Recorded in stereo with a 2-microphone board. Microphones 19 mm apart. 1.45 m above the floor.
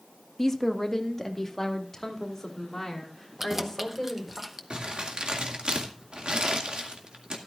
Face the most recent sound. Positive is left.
turn(degrees=-65)  # may be behind; listen again after turning